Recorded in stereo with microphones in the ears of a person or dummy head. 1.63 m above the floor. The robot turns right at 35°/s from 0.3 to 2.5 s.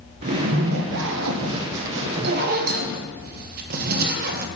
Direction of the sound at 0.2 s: 135° right.